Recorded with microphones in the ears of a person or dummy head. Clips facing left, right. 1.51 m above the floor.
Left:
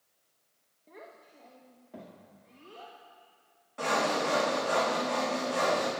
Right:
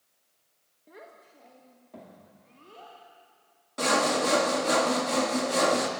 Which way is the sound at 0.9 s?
5° right (ahead or behind).